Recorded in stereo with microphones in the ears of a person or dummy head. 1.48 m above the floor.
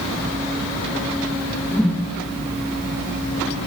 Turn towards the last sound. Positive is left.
turn(degrees=0)  # may be behind; listen again after turning